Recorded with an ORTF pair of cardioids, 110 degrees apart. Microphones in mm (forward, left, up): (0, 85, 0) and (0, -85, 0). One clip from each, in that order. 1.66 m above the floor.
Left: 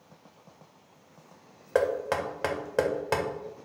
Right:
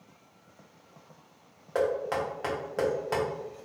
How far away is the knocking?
About 0.8 m.